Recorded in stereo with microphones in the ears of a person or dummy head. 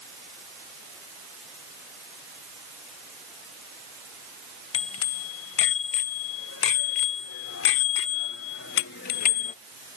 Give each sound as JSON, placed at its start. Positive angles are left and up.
{"t": 4.7, "sound": "a bicycle bell", "side_deg": 85}